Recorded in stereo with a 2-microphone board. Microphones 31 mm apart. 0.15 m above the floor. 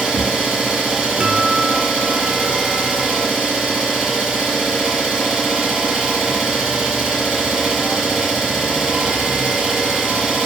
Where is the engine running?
20° right (ahead or behind), 2 m.